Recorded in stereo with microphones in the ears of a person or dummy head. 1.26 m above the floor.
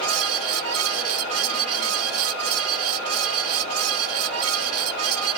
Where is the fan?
75° right (ahead or behind).